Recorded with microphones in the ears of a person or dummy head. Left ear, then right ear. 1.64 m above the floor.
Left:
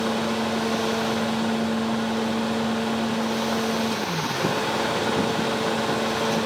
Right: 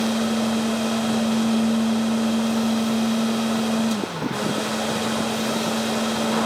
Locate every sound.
0.0 s a fan: 70° right (ahead or behind), 0.8 m